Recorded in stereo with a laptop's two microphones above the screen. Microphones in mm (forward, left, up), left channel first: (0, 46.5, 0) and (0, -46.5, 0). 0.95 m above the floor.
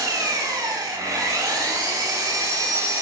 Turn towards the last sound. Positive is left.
turn(degrees=-35)  # may be behind; listen again after turning